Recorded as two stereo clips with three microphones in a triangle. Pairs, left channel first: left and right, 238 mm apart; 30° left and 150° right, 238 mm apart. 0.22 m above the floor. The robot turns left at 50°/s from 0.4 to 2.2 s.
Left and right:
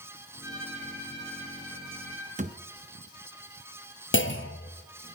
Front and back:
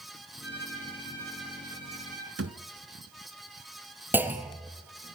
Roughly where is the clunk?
Behind left.